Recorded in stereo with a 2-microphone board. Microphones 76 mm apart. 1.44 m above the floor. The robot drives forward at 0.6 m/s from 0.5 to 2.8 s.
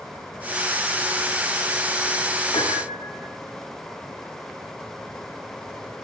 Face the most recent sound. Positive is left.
turn(degrees=80)